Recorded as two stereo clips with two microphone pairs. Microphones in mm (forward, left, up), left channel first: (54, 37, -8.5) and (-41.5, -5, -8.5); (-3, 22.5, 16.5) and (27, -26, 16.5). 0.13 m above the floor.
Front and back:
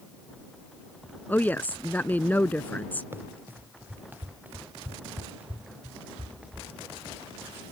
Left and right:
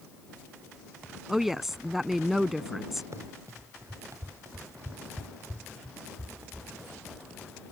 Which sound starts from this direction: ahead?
A woman speaking, at 1.3 s.